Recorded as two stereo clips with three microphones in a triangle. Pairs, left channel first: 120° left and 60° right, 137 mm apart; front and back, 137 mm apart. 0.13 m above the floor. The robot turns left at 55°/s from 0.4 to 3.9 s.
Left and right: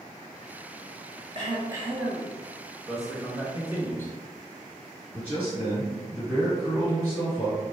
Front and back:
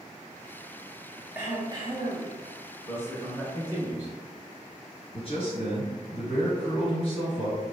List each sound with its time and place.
1.4 s throat clearing: 105° right, 0.7 m; by 2.4 s 160° right, 0.7 m
2.9 s a man speaking: 45° left, 1.2 m; by 4.2 s 15° right, 1.2 m
5.1 s a man speaking: 15° left, 2.0 m